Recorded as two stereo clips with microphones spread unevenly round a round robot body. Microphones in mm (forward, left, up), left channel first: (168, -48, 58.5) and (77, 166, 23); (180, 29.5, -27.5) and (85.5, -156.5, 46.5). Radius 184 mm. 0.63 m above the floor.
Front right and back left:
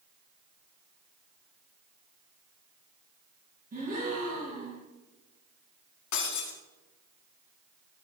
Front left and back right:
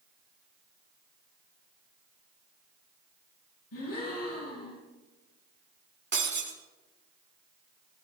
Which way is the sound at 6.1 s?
80° right.